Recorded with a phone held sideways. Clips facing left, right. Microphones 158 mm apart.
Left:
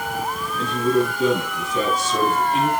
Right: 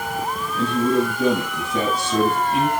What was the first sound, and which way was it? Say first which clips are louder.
A man speaking: right 1 dB; 65° right (ahead or behind).